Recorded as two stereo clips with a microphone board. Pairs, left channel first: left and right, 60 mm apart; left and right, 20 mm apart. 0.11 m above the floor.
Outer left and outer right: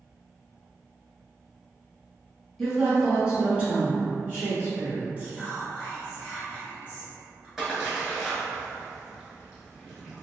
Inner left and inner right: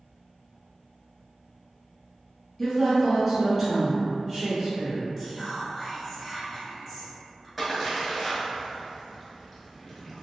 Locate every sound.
2.6 s a woman speaking: centre (ahead or behind), 1.2 m; by 5.1 s 35° right (ahead or behind), 1.4 m
5.2 s whispering: 25° right (ahead or behind), 1.5 m
7.6 s a splash: 5° right (ahead or behind), 0.9 m